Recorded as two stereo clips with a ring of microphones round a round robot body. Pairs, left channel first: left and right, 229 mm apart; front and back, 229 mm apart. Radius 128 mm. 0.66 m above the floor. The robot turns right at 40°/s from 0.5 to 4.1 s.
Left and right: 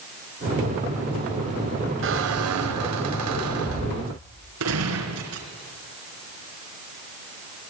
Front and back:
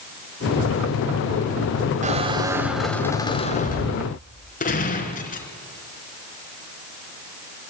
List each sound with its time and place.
2.0 s a squeak: 120° right, 2.5 m; by 4.1 s 40° right, 2.5 m
4.6 s a gunshot: 55° right, 3.5 m